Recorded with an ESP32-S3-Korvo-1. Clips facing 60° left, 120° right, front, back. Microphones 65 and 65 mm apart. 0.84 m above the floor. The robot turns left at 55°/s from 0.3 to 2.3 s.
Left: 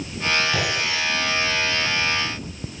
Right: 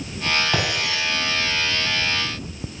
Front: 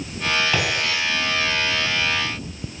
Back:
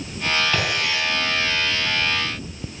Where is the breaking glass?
80° right, 5 m; by 1.0 s 110° right, 5 m.